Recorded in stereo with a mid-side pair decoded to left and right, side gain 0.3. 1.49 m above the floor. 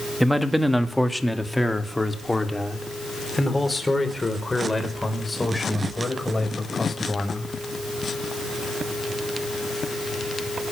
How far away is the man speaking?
About 2.5 m.